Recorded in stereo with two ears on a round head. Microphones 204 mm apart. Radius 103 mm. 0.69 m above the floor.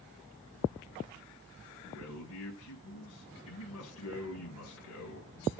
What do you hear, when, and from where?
1.9 s a man speaking: 70° left (ahead or behind), 3.5 m